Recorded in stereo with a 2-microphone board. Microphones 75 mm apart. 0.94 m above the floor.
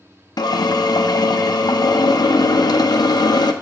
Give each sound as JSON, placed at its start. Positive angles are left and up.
{"t": 0.4, "sound": "a drill", "side_deg": 60, "distance_m": 0.5}